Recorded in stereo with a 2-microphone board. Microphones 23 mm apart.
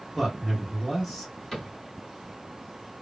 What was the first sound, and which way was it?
A man speaking, centre (ahead or behind).